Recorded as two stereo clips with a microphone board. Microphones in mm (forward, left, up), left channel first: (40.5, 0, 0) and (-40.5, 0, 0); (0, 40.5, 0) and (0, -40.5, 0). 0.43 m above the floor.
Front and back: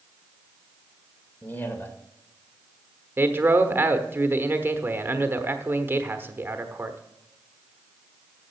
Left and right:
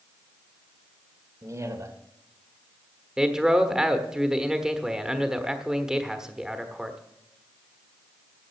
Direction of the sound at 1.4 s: 55° right.